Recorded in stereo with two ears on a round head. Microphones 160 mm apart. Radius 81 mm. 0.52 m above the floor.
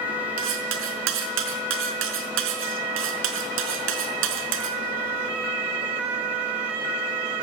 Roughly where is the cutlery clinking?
Right.